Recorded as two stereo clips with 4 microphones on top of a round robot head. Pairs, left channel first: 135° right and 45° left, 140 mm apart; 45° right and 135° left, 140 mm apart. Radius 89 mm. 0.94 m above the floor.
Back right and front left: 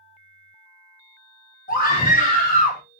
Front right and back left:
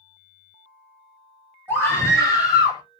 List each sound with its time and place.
1.7 s a scream: 120° right, 1.9 m; by 2.8 s 100° right, 1.9 m